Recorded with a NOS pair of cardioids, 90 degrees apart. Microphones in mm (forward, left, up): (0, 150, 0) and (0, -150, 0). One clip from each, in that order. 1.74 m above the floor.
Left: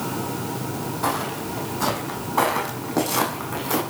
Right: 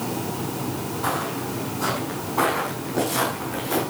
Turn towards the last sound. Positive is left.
turn(degrees=60)